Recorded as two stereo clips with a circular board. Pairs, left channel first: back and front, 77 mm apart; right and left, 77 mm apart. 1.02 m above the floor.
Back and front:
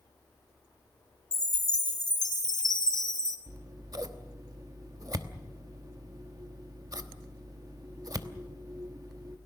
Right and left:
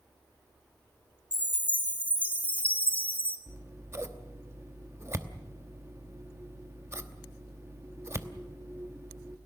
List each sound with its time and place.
1.3 s a chime: 160° right, 2.5 m
3.5 s scissors: 35° left, 1.1 m